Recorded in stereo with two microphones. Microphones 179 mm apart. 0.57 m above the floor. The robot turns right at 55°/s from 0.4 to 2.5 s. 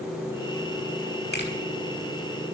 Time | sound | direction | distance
1.3 | a finger snap | 65° left (ahead or behind) | 6 m